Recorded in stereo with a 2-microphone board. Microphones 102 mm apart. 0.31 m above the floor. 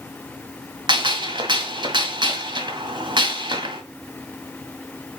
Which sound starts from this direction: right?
A gunshot, at 0.9 s.